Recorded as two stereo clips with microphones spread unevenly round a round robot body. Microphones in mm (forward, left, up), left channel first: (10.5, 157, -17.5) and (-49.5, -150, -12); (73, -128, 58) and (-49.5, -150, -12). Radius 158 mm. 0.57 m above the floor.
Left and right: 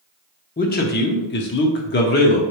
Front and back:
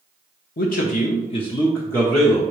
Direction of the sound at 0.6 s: 25° left.